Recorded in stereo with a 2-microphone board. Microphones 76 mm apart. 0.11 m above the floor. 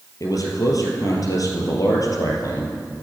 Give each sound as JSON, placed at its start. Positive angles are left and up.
{"t": 0.2, "sound": "a man speaking", "side_deg": 55, "distance_m": 2.5}